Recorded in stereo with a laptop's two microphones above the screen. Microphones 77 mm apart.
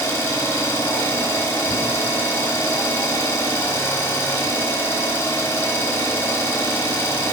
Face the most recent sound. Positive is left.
turn(degrees=30)  # may be behind; listen again after turning